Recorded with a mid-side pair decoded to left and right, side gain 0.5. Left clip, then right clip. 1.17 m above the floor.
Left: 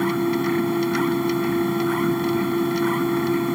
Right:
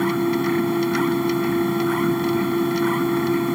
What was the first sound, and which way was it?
A machine running, 10° right.